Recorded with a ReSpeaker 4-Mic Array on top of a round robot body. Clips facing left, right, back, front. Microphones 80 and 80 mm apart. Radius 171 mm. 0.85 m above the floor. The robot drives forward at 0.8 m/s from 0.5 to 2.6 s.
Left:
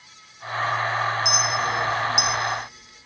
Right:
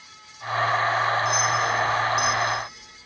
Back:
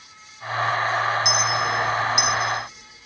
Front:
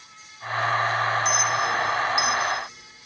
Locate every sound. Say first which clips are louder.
1.2 s a clink: right 1 dB, back 1 dB; 100° left, 5.5 m; by 2.3 s 110° left, 5.5 m